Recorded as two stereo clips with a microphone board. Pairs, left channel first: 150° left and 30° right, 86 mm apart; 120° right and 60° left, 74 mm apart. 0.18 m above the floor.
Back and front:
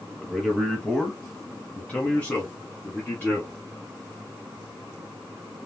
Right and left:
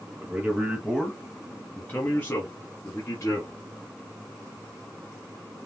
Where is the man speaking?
70° left, 1.2 m; by 3.5 s 150° right, 1.8 m.